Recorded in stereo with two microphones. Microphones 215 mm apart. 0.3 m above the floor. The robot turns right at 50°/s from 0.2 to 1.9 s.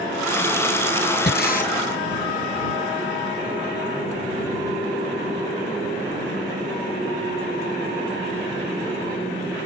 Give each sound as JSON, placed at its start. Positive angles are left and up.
{"t": 1.3, "sound": "breathing", "side_deg": 60}